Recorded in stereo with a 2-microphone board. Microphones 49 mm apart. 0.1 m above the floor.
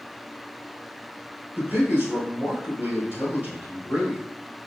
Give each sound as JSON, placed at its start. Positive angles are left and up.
{"t": 1.6, "sound": "a man speaking", "side_deg": -45, "distance_m": 1.8}